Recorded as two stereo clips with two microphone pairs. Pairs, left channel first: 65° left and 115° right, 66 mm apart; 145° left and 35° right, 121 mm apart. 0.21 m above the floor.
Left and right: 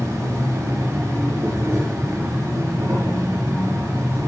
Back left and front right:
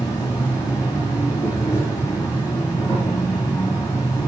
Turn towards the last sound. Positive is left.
turn(degrees=-160)